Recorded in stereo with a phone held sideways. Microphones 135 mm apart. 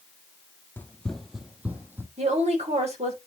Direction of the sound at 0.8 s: 15° left (ahead or behind).